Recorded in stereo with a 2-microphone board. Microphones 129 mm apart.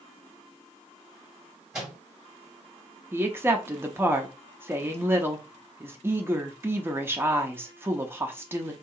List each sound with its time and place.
1.7 s a microwave: 5° right (ahead or behind), 1.8 m
3.1 s a woman speaking: 20° right (ahead or behind), 0.6 m